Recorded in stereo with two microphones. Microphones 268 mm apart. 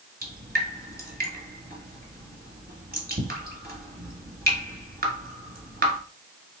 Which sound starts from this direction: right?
Dripping, at 0.2 s.